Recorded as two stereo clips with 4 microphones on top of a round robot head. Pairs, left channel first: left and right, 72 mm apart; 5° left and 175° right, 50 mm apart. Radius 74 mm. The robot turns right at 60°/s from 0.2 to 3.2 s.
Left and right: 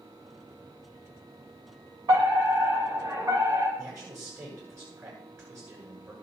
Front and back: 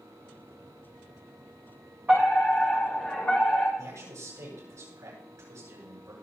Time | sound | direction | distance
2.1 | a fire alarm | 115° right | 6 m
3.8 | a man speaking | 145° right | 8.5 m